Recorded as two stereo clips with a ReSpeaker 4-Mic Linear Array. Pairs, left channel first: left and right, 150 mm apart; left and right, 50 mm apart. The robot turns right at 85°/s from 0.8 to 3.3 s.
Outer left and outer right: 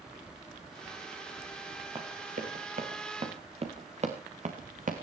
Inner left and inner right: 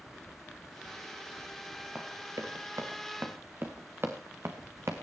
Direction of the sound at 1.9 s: 35° right (ahead or behind).